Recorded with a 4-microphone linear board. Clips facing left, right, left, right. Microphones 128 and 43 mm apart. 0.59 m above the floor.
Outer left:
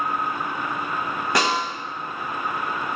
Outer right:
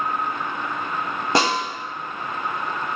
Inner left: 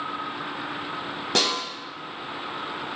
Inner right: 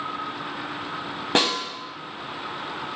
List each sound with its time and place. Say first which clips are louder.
1.4 s a snare drum: outer right 2 dB, inner right 3 dB; 30° right (ahead or behind), 0.6 m